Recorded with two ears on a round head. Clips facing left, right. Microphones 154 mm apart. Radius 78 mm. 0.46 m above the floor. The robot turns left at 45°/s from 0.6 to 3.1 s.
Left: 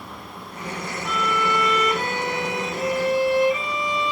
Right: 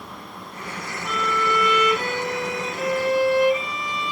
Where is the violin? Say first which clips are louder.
Even; 175° right, 2.5 m; by 4.1 s 90° left, 2.5 m.